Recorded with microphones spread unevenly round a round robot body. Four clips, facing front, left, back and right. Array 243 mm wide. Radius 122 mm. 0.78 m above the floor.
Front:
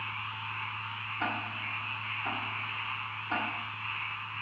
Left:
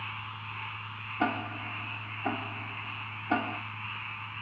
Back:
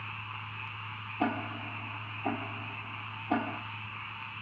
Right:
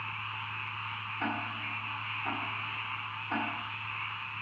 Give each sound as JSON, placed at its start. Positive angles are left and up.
{"t": 1.2, "sound": "ticking", "azimuth_deg": 130, "distance_m": 1.5}